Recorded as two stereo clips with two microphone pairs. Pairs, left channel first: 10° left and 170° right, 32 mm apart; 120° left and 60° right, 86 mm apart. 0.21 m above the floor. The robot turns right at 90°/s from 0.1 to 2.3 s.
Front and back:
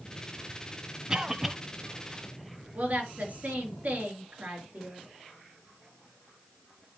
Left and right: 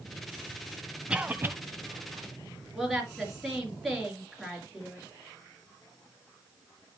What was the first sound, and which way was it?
A cough, 130° right.